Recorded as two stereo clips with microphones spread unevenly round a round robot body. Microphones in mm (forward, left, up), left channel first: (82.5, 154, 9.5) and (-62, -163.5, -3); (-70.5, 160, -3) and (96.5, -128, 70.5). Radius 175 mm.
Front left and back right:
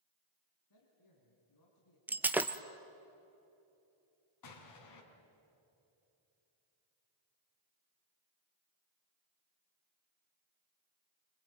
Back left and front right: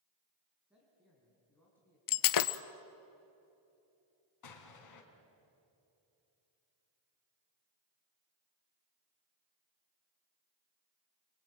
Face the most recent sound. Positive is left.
turn(degrees=100)